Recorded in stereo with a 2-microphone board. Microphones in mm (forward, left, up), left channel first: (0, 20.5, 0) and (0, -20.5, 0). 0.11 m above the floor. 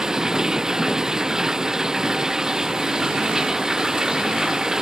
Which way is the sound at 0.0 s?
15° right (ahead or behind).